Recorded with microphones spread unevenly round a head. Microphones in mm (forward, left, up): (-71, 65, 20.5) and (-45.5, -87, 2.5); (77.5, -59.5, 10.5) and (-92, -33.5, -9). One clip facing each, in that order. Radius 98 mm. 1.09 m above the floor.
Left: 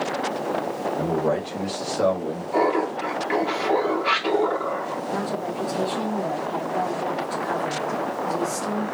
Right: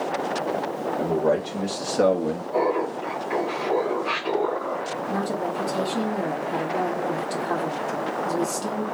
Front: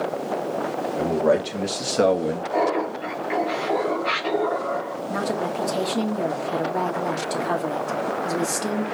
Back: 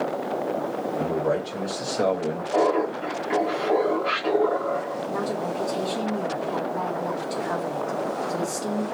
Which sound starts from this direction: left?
Laughter, at 2.5 s.